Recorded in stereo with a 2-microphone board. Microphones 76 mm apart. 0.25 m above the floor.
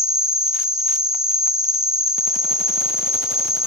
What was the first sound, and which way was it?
An insect, 40° left (ahead or behind).